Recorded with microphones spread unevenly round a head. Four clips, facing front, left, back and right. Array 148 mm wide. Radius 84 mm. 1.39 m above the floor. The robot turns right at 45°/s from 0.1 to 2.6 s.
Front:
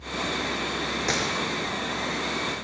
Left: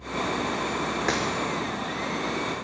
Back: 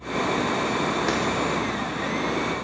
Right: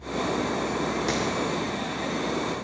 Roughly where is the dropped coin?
Left.